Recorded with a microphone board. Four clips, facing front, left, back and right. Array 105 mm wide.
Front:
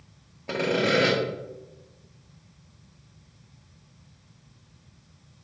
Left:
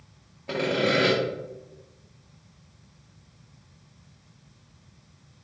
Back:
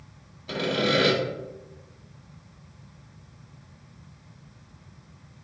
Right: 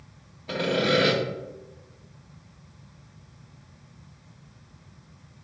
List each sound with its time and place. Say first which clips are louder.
0.5 s sawing: even, front 1 dB; 20° left, 1.4 m